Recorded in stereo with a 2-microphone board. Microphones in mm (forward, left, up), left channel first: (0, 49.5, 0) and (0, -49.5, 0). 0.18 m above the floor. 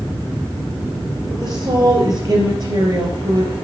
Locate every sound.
1.3 s a woman speaking: 50° right (ahead or behind), 3.5 m